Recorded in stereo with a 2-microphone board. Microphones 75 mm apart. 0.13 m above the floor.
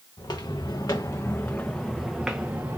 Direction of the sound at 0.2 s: 70° left (ahead or behind).